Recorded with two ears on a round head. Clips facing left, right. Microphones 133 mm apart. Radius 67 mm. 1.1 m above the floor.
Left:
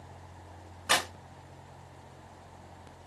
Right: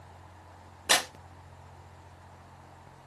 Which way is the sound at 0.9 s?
25° right (ahead or behind).